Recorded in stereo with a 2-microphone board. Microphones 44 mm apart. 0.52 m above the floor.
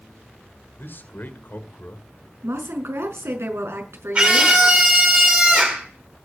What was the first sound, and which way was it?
A man speaking, 55° left (ahead or behind).